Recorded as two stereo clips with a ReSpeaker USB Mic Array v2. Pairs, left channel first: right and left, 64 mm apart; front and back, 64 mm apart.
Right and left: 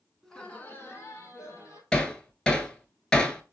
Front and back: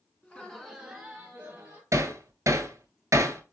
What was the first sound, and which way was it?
Laughter, 15° right.